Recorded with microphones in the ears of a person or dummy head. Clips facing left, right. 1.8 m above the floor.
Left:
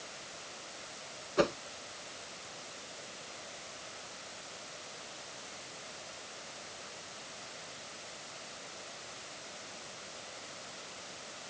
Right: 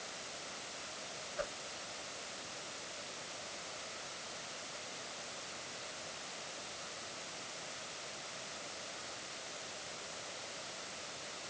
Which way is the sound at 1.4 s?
90° left.